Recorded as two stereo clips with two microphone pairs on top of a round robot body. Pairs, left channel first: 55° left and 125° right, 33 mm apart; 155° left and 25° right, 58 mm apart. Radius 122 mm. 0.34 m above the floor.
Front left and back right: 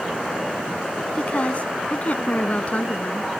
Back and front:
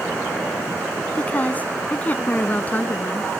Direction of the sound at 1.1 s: 95° left.